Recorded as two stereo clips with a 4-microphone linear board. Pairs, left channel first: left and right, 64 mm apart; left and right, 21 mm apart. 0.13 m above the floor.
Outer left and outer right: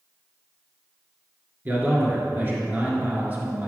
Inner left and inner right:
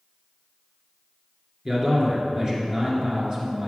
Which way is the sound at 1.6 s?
30° right (ahead or behind).